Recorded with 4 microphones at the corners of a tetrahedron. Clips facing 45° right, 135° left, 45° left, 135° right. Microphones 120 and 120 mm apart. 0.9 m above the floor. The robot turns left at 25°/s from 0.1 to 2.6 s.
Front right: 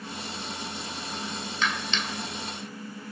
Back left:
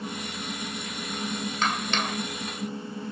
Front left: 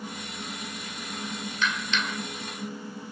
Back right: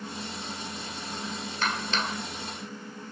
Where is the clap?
175° right; by 2.2 s 170° left.